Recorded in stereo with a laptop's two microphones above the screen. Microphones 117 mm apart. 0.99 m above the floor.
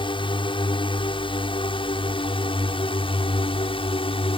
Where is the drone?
40° left (ahead or behind); by 4.4 s 45° left (ahead or behind).